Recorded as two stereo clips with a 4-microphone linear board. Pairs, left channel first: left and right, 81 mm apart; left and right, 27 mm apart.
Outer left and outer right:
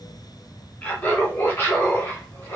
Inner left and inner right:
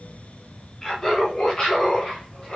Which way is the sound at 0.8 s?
20° left (ahead or behind).